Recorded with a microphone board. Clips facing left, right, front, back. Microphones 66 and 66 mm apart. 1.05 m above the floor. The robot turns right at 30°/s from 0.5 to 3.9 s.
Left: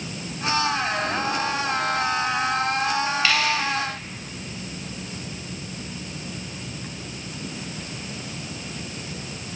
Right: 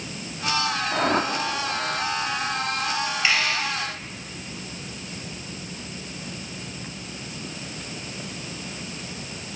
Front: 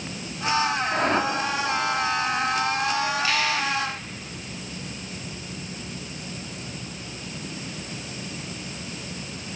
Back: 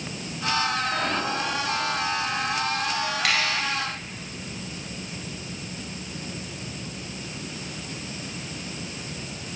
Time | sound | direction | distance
0.9 | a whoosh | 65° right | 2.5 m
3.2 | a finger snap | 160° right | 6 m